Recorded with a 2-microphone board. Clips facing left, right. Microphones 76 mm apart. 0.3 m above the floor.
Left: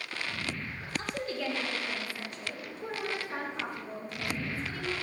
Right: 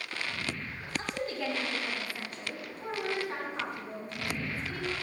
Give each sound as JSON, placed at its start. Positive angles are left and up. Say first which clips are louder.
{"t": 1.0, "sound": "a woman speaking", "louder": "even", "side_deg": -30, "distance_m": 2.0}